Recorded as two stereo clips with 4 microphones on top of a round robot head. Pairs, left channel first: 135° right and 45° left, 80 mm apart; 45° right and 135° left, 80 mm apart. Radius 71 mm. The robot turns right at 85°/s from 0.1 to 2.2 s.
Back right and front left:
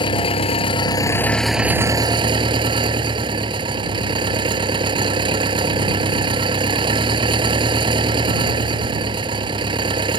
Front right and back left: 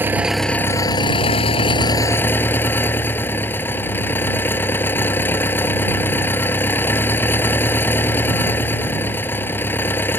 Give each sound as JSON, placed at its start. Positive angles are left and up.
{"t": 0.0, "sound": "an engine running", "azimuth_deg": -160}